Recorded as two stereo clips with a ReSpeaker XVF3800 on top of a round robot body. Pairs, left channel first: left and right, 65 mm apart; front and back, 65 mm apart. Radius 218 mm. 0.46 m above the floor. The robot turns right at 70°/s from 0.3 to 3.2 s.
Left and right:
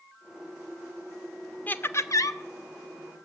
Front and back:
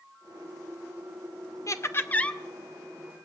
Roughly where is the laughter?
Ahead left.